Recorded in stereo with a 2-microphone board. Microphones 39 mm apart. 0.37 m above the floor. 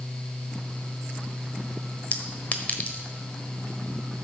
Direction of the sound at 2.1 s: 40° left (ahead or behind).